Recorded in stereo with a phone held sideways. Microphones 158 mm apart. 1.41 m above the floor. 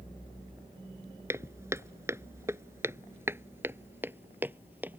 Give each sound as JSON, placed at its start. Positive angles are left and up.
{"t": 1.3, "sound": "footsteps", "side_deg": -15}